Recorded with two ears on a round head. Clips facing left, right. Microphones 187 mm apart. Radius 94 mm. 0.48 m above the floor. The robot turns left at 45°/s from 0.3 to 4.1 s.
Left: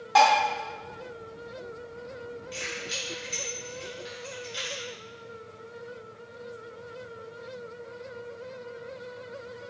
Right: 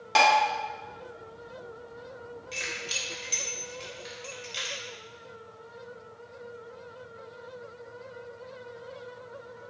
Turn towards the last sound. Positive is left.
turn(degrees=-30)  # may be behind; listen again after turning